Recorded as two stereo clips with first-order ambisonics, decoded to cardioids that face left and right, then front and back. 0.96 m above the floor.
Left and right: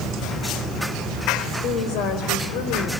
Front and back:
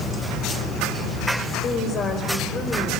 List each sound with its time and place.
1.6 s a woman speaking: 55° left, 5.5 m; by 2.9 s 75° left, 4.5 m